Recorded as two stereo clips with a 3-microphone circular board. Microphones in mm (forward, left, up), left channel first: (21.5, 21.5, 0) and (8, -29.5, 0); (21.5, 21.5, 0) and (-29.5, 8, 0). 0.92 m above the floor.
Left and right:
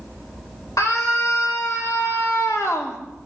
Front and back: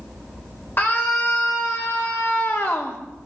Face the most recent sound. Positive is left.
turn(degrees=55)